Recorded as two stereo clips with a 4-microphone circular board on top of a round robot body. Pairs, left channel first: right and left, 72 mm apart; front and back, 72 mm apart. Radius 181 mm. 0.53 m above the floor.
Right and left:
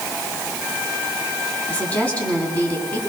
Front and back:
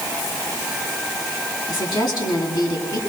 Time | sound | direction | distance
1.7 | a woman speaking | 20° right | 8 m